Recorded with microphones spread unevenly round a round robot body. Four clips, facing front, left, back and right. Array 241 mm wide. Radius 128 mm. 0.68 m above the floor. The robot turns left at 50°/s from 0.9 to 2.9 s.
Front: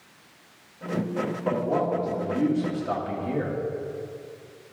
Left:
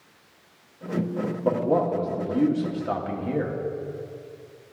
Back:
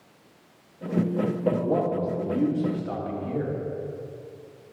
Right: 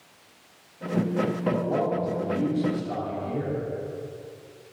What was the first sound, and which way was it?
A man speaking, 125° left.